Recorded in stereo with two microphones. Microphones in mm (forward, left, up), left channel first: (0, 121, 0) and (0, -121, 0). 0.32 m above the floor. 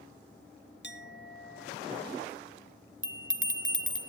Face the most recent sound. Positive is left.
turn(degrees=-55)  # may be behind; listen again after turning